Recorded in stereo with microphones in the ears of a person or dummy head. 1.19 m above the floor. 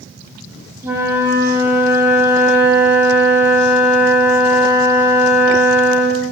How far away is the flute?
About 1.9 m.